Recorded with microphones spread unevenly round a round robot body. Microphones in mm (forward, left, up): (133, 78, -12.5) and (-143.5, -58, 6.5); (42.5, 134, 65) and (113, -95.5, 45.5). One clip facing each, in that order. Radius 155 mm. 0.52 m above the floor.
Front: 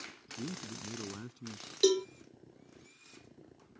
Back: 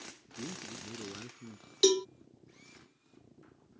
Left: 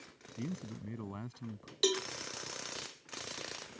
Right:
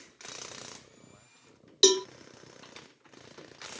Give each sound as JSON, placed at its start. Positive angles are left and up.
{"t": 0.4, "sound": "a man speaking", "azimuth_deg": 100}
{"t": 1.8, "sound": "a cowbell", "azimuth_deg": -80}